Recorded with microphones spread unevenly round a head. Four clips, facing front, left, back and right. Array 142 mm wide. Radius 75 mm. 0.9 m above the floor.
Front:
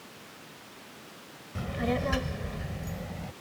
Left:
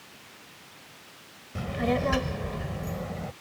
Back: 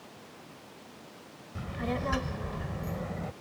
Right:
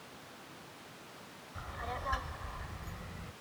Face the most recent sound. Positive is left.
turn(degrees=135)